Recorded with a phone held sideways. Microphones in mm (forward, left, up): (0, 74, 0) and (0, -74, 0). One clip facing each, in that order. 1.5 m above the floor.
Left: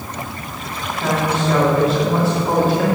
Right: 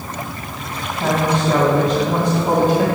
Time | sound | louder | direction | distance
1.0 | a woman speaking | right 2 dB | 20° right (ahead or behind) | 1.7 m